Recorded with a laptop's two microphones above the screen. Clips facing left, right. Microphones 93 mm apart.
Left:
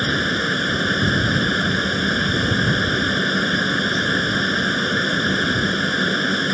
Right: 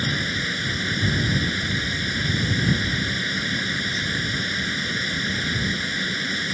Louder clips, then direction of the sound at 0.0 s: Left 6 dB; 55° left (ahead or behind).